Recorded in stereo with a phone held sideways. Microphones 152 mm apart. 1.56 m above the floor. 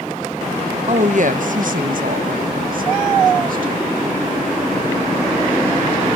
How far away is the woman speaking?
About 0.9 m.